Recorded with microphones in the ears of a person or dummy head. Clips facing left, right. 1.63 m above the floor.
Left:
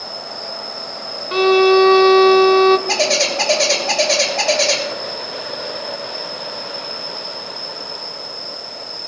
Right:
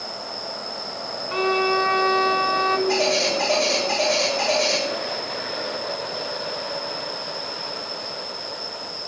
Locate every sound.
0.0 s an insect: 40° left (ahead or behind), 5 m
1.3 s a violin: 60° left (ahead or behind), 0.9 m
2.9 s a bird: 70° left (ahead or behind), 3 m